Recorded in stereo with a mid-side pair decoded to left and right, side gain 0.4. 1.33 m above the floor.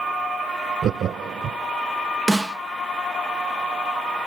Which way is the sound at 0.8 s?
70° right.